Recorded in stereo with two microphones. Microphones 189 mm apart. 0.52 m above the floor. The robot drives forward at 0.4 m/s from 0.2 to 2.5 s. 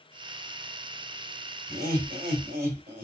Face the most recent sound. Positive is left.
turn(degrees=-60)  # may be behind; listen again after turning